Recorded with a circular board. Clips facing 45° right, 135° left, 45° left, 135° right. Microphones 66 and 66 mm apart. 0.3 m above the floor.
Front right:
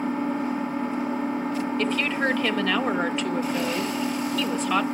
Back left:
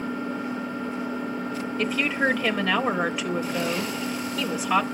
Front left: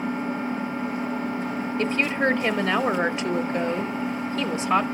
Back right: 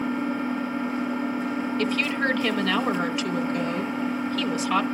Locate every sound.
0.0 s an engine running: 20° right, 2.5 m
1.8 s a woman speaking: 60° left, 0.9 m